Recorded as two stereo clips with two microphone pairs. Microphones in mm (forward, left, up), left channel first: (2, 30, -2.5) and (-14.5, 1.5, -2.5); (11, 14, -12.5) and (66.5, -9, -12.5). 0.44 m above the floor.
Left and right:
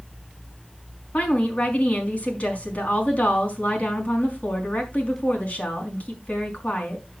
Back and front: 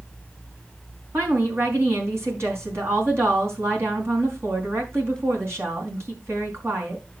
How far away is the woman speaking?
About 4.5 m.